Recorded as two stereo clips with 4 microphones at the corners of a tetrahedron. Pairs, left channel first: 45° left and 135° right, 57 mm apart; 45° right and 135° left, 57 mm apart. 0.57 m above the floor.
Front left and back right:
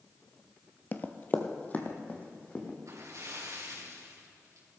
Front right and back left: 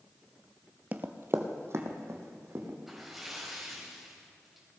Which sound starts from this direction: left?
Running footsteps, at 0.9 s.